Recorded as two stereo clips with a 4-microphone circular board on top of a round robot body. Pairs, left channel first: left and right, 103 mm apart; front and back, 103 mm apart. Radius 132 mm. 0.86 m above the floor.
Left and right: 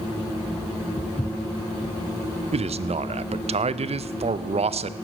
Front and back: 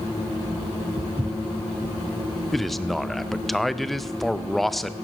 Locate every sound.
1.0 s footsteps: 150° left, 1.1 m
2.5 s a man speaking: 90° right, 0.6 m